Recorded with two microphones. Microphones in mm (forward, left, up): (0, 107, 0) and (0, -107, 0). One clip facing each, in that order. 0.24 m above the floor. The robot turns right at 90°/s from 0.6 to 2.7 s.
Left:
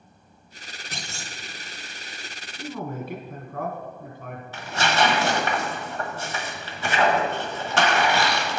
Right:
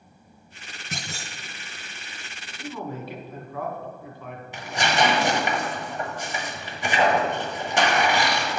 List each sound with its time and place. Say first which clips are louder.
0.9 s a clunk: right 3 dB; 135° right, 0.8 m; by 1.4 s 95° right, 0.8 m
2.6 s a man speaking: left 1 dB; 50° left (ahead or behind), 1.7 m; by 4.4 s 45° left (ahead or behind), 1.7 m
4.5 s tearing paper: even; 15° right (ahead or behind), 1.1 m